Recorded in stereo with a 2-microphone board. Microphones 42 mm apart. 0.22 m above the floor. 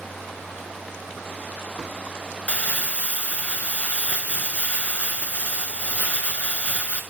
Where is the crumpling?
35° left (ahead or behind), 1.0 m.